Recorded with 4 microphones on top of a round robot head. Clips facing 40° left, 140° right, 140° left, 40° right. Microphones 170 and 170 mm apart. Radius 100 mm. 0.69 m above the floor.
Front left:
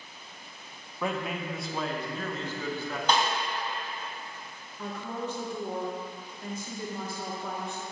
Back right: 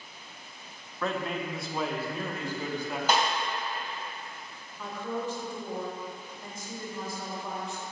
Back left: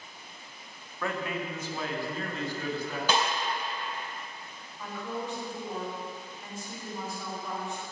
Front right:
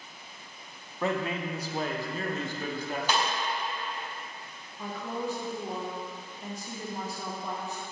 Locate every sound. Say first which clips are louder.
1.0 s a man speaking: even, front right 3 dB; 15° right, 0.8 m; by 3.0 s 70° right, 1.5 m
3.1 s a snare drum: even, back left 2 dB; 135° left, 1.8 m
4.8 s a woman speaking: back right 1 dB, front right 2 dB; 10° left, 1.3 m